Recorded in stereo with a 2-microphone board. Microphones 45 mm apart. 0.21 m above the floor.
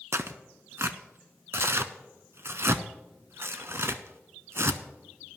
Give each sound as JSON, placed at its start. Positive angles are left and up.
{"t": 0.1, "sound": "tearing paper", "side_deg": -65, "distance_m": 0.6}